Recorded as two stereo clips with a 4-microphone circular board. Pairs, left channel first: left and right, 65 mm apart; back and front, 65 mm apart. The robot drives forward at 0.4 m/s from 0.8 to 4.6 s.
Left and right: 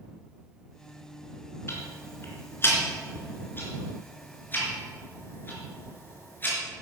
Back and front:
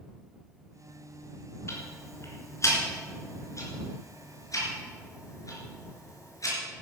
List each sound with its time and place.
1.7 s ticking: 140° left, 3 m; by 6.5 s 150° left, 4 m